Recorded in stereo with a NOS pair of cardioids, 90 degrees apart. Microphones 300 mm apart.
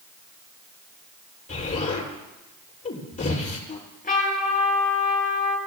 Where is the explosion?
25° left, 6.5 m.